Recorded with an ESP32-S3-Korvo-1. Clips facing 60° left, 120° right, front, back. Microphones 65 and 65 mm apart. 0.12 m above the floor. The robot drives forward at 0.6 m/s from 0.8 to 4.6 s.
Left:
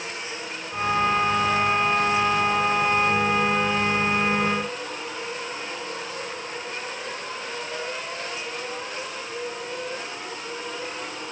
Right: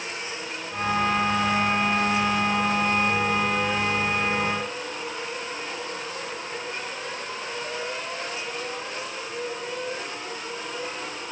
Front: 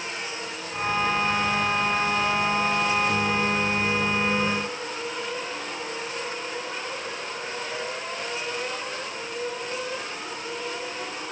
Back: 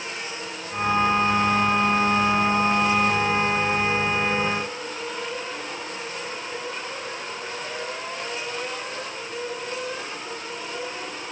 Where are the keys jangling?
No keys jangling in this recording.